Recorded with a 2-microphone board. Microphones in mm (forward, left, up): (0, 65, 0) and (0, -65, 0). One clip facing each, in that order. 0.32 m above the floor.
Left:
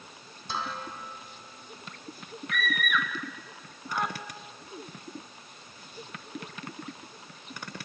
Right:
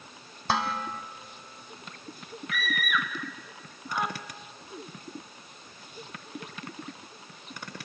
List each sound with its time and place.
0.5 s dishes clattering: 70° right (ahead or behind), 1.6 m
2.5 s a scream: centre (ahead or behind), 3 m